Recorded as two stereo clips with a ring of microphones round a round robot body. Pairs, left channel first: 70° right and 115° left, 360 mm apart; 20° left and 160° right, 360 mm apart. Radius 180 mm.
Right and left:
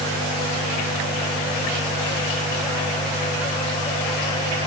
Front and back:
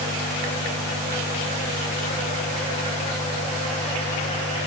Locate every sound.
Only background noise.